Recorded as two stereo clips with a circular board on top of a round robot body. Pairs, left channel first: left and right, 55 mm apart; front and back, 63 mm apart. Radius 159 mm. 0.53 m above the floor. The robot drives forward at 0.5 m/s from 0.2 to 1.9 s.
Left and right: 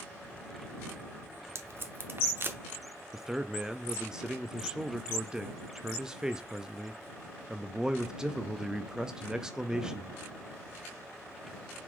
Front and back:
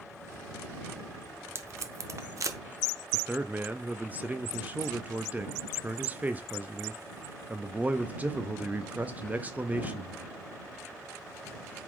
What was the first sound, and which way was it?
Tape being pulled, 130° right.